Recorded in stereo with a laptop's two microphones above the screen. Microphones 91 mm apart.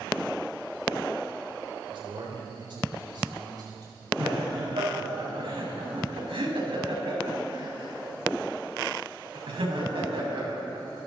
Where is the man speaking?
70° right (ahead or behind), 3.5 m; by 4.1 s 50° right (ahead or behind), 5 m.